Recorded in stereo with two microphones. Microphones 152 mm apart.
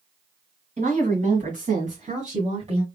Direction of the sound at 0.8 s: 50° right (ahead or behind).